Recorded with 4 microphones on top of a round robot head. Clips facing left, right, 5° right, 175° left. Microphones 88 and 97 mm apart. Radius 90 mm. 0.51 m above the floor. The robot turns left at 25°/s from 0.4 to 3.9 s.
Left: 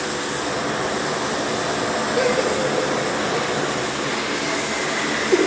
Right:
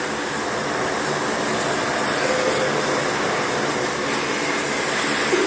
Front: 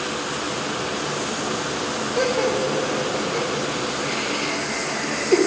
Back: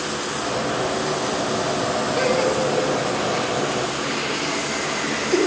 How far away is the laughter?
About 1.6 m.